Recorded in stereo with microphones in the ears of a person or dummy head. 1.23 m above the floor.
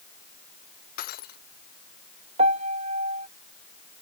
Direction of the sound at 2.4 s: 35° right (ahead or behind).